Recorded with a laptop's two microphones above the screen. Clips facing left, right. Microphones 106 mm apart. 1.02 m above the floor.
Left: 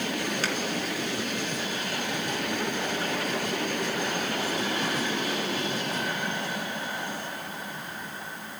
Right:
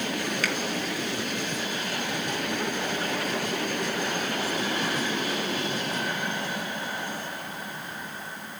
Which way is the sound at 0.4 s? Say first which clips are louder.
Right 1 dB; 30° left (ahead or behind).